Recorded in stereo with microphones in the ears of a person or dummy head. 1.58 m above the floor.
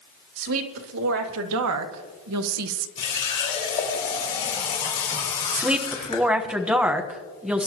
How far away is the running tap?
About 5 m.